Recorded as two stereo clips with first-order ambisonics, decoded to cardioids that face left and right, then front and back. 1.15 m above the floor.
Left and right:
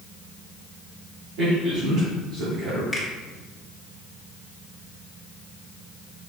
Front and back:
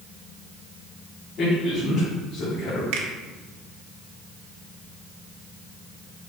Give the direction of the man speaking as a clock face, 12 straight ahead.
2 o'clock.